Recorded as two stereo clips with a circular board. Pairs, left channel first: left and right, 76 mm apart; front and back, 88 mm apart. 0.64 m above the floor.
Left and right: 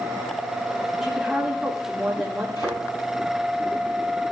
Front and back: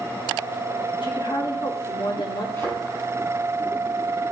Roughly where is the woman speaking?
Ahead.